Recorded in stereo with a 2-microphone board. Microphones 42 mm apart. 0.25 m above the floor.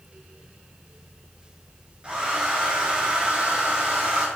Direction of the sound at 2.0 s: 25° right (ahead or behind).